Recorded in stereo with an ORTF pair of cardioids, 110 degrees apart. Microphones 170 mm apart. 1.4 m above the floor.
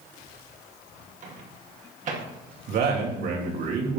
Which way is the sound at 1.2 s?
45° right.